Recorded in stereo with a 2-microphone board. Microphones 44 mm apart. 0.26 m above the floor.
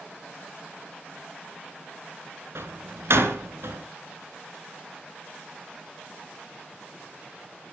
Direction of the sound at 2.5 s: 70° right (ahead or behind).